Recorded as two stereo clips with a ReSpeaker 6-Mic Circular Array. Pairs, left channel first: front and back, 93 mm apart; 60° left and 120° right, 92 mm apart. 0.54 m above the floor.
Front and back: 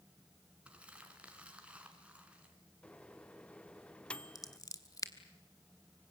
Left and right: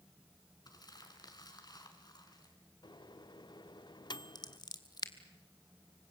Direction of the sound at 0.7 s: 105° left.